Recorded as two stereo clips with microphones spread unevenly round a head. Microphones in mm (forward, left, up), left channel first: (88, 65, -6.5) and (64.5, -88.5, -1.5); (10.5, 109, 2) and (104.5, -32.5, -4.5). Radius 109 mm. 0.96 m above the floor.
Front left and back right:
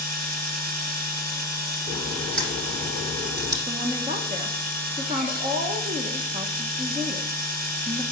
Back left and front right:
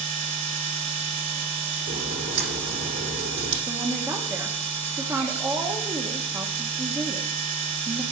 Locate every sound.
0.0 s a machine running: 85° right, 5.5 m
1.9 s a crack: 80° right, 6 m
3.7 s a woman speaking: 115° right, 0.8 m